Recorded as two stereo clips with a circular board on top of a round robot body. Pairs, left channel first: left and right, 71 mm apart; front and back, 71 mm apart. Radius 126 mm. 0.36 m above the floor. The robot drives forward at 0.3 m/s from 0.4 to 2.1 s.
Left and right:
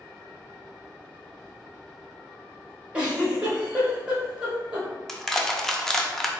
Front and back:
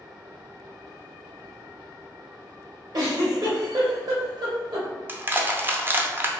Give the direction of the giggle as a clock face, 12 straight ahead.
6 o'clock.